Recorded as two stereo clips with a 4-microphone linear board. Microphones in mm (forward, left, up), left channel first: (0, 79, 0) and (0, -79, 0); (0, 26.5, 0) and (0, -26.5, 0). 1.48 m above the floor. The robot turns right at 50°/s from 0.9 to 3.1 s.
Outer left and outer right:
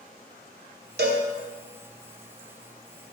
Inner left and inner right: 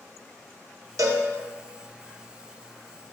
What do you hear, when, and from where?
1.0 s a cowbell: 85° right, 1.1 m; by 1.2 s 75° right (ahead or behind), 1.1 m